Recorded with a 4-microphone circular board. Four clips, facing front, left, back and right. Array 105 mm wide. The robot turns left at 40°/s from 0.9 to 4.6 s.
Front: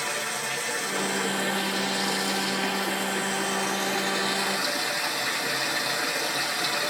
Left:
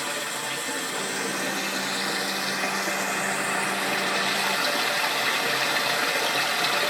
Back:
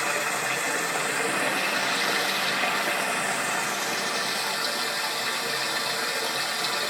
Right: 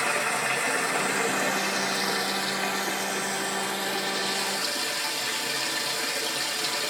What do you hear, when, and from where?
0.0 s running water: 125° right, 0.8 m; by 6.9 s 90° left, 0.8 m